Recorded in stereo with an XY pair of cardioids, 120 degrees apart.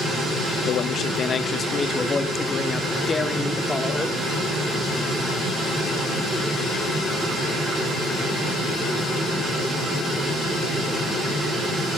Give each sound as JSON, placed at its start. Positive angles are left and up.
{"t": 0.7, "sound": "a man speaking", "azimuth_deg": 65, "distance_m": 0.8}